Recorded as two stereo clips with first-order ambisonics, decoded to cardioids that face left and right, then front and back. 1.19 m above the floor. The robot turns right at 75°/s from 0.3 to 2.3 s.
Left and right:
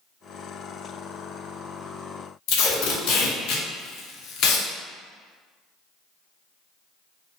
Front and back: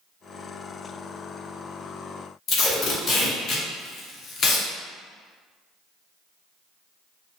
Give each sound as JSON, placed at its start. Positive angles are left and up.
{"t": 2.5, "sound": "tape being pulled", "azimuth_deg": 55, "distance_m": 0.5}